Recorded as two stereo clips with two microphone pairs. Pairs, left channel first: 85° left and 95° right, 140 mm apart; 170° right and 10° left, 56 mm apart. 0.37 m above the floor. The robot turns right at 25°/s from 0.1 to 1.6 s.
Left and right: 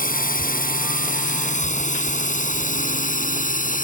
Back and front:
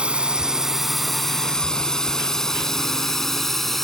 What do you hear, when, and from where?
0.0 s a drone: 80° left; by 3.8 s 105° left